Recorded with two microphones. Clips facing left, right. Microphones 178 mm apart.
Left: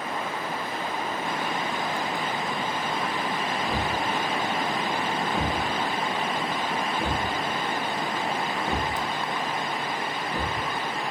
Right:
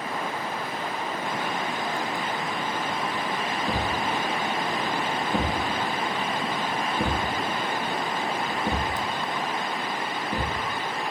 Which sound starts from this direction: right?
A thud, at 3.7 s.